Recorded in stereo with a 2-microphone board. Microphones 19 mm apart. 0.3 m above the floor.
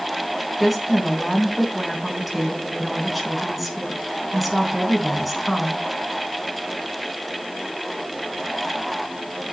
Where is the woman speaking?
5° right (ahead or behind), 3 m.